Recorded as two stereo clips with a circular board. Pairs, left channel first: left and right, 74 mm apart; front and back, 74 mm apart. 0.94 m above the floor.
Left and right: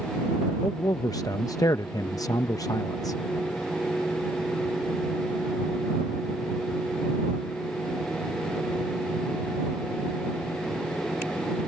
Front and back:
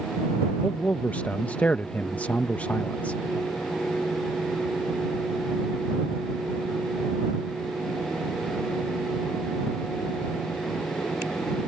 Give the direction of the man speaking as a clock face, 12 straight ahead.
10 o'clock.